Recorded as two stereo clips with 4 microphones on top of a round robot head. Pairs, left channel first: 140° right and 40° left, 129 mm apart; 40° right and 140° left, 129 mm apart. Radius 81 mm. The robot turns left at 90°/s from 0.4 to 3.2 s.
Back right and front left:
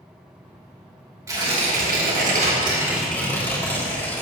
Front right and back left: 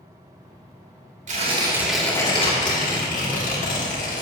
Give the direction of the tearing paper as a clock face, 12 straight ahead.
8 o'clock.